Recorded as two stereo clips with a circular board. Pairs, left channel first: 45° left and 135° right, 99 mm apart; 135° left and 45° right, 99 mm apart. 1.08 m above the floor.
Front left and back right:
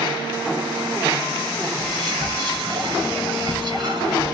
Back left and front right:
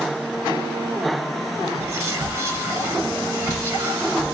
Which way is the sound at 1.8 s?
110° right.